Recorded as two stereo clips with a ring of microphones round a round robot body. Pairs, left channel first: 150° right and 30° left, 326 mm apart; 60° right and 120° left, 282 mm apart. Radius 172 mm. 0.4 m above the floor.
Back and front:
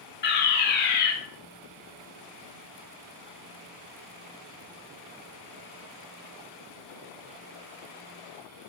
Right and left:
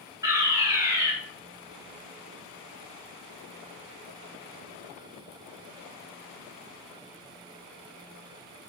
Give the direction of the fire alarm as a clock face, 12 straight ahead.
6 o'clock.